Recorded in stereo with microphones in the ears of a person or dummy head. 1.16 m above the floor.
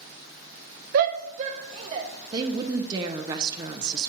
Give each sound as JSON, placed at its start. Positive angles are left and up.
{"t": 0.9, "sound": "a shout", "side_deg": -50, "distance_m": 0.7}
{"t": 2.3, "sound": "a woman speaking", "side_deg": -20, "distance_m": 0.7}